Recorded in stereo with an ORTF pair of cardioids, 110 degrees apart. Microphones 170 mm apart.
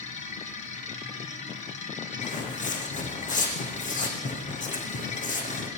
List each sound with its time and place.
0.0 s a machine running: 45° left, 3.5 m
2.2 s footsteps: 50° left, 4.5 m